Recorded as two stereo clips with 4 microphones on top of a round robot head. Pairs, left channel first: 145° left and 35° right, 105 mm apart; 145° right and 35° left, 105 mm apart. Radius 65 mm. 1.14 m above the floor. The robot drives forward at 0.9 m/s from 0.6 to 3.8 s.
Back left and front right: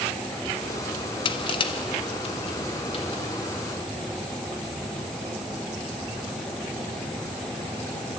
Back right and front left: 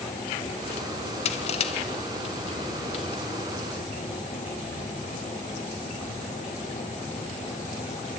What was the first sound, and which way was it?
Crushing, 170° right.